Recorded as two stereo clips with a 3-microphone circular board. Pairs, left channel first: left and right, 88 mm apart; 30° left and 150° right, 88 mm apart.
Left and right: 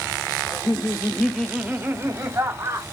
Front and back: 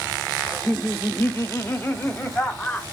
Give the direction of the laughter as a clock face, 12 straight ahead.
8 o'clock.